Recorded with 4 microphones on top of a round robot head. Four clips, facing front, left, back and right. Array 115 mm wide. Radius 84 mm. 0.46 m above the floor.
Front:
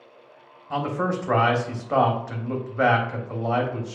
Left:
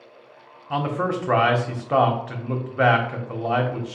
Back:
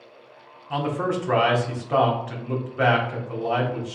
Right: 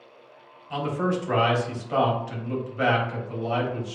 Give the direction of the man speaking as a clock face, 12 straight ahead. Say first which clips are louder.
Left 2 dB, back 1 dB; 10 o'clock.